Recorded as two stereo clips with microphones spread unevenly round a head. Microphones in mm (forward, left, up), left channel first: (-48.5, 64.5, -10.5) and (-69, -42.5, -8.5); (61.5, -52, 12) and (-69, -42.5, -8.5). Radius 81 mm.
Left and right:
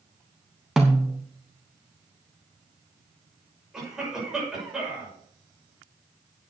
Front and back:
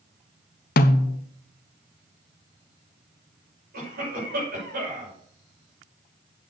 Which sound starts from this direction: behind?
A cough, at 3.7 s.